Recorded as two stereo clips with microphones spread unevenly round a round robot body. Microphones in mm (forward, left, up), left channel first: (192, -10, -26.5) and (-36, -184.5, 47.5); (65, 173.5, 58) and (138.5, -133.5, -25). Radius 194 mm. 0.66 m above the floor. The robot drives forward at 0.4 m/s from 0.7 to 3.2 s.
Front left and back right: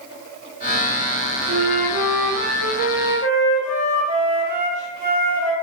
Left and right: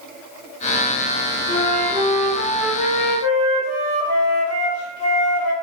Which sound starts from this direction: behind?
A flute, at 1.5 s.